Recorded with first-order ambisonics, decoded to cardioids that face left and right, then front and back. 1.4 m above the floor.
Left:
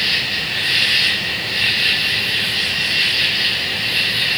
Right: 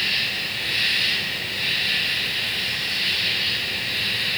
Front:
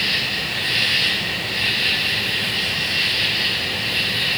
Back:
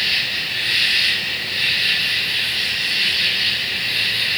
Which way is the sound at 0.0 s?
85° left.